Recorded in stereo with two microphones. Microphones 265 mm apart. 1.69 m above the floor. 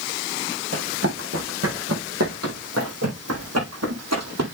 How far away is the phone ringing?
No phone ringing in this recording.